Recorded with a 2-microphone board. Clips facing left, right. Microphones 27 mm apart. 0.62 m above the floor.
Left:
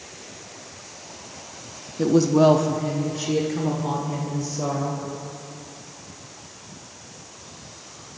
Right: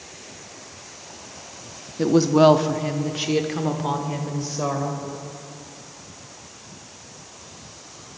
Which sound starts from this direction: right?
A woman speaking, at 2.0 s.